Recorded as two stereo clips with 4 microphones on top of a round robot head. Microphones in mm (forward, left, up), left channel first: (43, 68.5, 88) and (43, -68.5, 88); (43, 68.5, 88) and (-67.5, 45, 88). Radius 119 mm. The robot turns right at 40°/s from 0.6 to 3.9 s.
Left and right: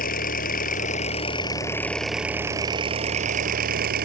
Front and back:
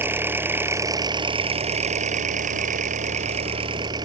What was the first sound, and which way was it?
An engine running, 120° left.